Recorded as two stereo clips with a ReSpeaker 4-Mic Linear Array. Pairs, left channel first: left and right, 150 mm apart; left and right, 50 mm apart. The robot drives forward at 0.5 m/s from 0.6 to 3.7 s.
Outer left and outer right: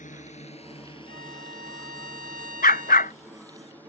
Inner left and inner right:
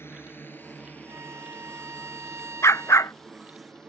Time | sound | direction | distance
0.0 | a drone | 55° left (ahead or behind) | ?
1.1 | a violin | 75° right (ahead or behind) | ?
2.6 | a dog barking | 85° left | ?